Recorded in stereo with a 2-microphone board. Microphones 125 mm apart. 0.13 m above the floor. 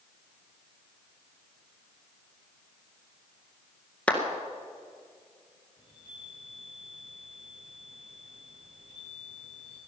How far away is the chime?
About 8 m.